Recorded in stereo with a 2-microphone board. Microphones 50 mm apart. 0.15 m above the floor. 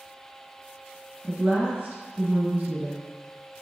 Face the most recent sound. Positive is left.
turn(degrees=-30)  # may be behind; listen again after turning